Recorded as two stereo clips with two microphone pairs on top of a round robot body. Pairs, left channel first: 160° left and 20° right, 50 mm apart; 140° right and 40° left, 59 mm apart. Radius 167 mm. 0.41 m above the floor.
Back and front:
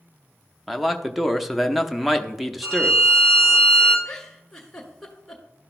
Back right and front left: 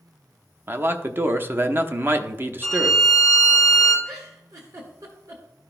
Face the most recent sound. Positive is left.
turn(degrees=75)